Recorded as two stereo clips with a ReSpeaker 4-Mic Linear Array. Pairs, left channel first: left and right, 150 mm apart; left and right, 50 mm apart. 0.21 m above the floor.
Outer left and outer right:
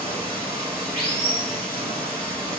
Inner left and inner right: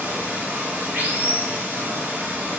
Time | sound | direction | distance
0.0 | running water | 40° right (ahead or behind) | 0.8 m